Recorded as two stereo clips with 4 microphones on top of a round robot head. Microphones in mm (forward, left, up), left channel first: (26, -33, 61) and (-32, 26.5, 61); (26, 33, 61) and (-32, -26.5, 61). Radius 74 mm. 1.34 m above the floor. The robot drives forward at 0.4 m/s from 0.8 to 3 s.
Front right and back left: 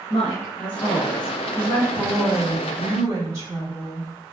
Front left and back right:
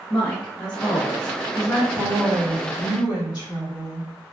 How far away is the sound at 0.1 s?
About 1.1 m.